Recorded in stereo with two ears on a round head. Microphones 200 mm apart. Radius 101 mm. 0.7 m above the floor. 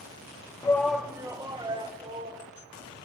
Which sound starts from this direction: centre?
A shout, at 0.6 s.